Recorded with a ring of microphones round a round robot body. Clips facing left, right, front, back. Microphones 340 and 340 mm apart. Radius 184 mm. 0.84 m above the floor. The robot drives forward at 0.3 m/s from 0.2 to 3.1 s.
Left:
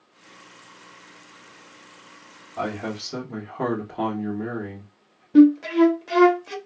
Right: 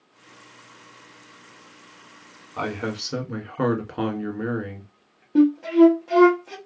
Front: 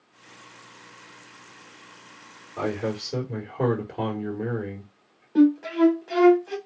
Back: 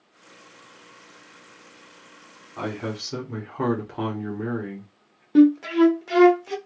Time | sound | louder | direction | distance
2.6 | a man speaking | right 1 dB, front 3 dB | 105° right | 1.2 m
5.3 | a flute | left 2 dB, back 3 dB | 145° left | 0.9 m